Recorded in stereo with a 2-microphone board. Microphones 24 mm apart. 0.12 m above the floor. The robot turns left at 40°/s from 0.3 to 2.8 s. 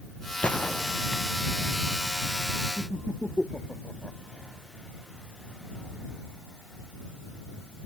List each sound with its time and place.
0.4 s a gunshot: 60° left (ahead or behind); by 1.5 s 75° left (ahead or behind)
2.8 s laughter: 50° left (ahead or behind)